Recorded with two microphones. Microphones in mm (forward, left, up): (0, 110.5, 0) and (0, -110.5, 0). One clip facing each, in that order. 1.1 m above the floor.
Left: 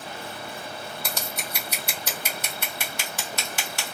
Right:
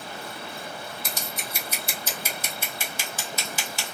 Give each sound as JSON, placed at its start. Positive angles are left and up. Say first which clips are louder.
{"t": 1.0, "sound": "scissors", "louder": "left 2 dB", "side_deg": 65, "distance_m": 1.4}